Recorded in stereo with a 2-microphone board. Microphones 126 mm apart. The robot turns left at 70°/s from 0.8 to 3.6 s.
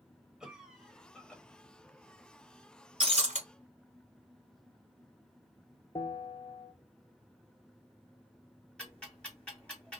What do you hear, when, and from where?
0.4 s a cough: 5° right (ahead or behind), 0.9 m; by 1.4 s 10° left (ahead or behind), 0.9 m
3.0 s breaking glass: 50° right (ahead or behind), 1.0 m; by 3.4 s 75° right (ahead or behind), 1.0 m
6.0 s a bell: 45° left (ahead or behind), 0.9 m
8.8 s ticking: 5° left (ahead or behind), 2 m